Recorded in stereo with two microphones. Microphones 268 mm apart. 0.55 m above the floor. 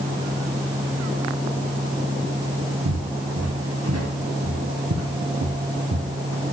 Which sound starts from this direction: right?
Footsteps, at 2.9 s.